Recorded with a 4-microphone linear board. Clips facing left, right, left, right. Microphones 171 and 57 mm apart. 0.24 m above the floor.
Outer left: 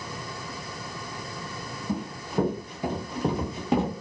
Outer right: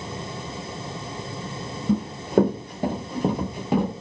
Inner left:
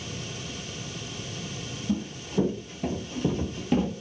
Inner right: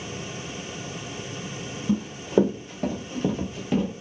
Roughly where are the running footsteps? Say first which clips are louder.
Outer right 10 dB, inner right 7 dB; right.